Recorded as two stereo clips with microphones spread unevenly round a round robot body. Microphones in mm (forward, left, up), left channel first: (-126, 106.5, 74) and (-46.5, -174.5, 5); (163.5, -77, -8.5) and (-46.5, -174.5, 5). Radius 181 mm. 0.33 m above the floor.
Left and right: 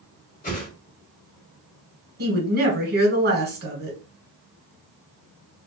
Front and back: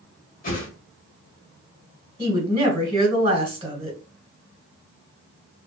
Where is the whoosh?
35° left, 1.2 m.